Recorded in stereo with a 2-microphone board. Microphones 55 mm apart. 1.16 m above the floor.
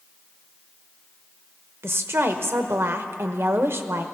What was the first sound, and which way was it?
A woman speaking, 50° right (ahead or behind).